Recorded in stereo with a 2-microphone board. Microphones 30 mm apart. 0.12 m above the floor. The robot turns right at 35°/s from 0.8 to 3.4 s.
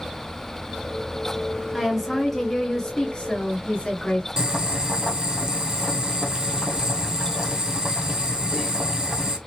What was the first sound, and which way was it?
A woman speaking, 10° right.